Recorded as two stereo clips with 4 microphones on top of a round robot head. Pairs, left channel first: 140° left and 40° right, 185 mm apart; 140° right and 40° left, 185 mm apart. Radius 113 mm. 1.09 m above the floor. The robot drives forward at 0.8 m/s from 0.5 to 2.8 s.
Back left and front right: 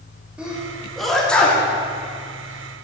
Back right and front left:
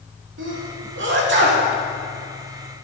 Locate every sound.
0.4 s a sneeze: 40° left, 2.5 m; by 1.6 s 60° left, 2 m